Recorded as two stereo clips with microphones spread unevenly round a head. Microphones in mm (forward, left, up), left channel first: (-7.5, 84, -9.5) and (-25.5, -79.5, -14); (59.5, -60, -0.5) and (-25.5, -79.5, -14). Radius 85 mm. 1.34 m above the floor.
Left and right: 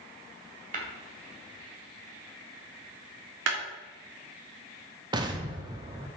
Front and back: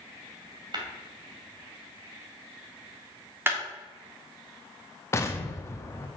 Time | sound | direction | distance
0.7 | tapping | 130° right | 2.5 m
3.5 | a clap | 100° right | 3 m
5.1 | an explosion | 35° right | 1.1 m